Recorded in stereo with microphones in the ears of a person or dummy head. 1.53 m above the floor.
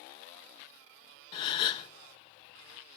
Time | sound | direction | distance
1.3 | a gasp | 40° left (ahead or behind) | 0.8 m